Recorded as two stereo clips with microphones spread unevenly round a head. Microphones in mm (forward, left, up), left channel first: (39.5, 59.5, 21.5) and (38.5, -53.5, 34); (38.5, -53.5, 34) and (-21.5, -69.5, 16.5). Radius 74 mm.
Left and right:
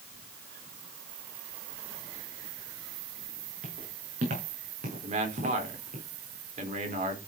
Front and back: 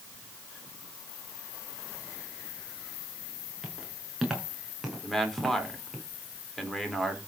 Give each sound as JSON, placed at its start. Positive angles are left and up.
{"t": 3.6, "sound": "footsteps", "azimuth_deg": -80, "distance_m": 7.0}
{"t": 5.0, "sound": "a man speaking", "azimuth_deg": -75, "distance_m": 4.0}